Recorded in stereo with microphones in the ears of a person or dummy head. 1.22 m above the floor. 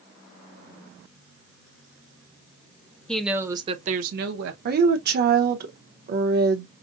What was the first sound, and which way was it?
A woman speaking, 5° left (ahead or behind).